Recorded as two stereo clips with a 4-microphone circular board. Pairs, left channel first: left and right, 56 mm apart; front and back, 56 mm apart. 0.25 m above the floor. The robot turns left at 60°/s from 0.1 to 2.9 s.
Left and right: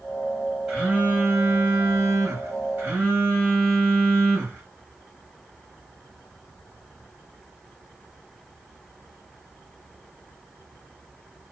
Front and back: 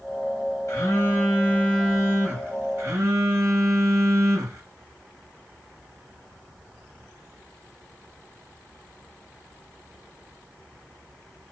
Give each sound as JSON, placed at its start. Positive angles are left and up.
{"t": 0.7, "sound": "a phone buzzing", "azimuth_deg": -10, "distance_m": 2.5}